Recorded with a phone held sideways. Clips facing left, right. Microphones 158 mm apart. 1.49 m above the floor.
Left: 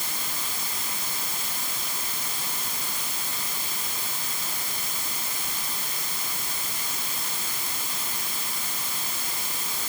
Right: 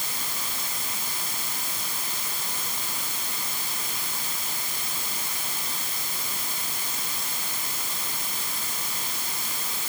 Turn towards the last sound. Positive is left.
No sound to turn to.